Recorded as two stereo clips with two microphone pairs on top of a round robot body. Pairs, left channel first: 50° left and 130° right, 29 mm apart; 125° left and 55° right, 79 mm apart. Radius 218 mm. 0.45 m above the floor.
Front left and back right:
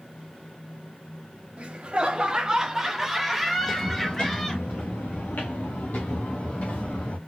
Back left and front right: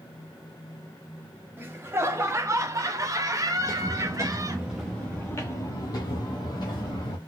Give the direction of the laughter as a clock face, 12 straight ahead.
3 o'clock.